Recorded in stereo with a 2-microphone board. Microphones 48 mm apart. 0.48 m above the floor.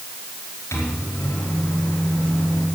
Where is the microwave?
70° left (ahead or behind), 4.5 m.